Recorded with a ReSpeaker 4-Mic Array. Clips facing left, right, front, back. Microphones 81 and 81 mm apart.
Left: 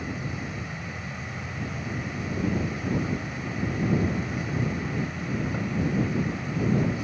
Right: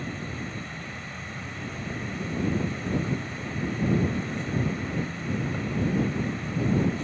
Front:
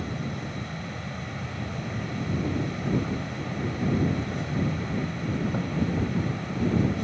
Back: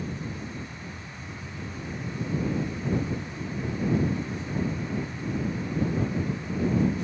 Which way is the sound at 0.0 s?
10° left.